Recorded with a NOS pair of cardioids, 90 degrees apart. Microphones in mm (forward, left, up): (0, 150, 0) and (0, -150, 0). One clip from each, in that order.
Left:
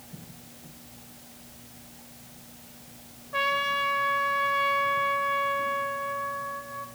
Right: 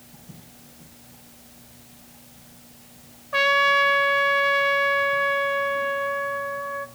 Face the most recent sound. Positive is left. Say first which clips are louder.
# right 8 dB
turn(degrees=-65)